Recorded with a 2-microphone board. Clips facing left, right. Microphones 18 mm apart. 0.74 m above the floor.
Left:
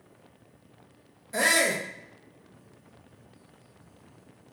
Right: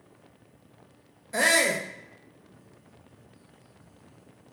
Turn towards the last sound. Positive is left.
turn(degrees=-5)  # may be behind; listen again after turning